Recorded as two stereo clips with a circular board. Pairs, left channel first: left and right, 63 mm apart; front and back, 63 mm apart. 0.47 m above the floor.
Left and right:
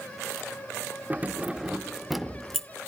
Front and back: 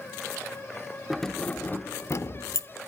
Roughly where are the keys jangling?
Right.